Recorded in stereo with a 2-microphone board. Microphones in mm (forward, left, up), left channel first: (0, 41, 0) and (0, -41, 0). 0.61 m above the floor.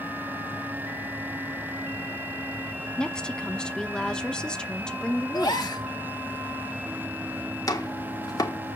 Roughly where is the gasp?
Left.